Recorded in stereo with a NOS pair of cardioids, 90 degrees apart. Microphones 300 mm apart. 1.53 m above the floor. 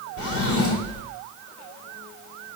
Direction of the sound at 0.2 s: 50° left.